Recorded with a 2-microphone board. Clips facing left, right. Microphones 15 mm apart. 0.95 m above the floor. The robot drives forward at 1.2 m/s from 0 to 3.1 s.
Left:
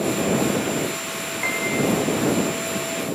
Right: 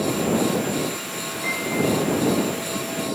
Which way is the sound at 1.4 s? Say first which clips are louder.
Left 1 dB; 55° left (ahead or behind).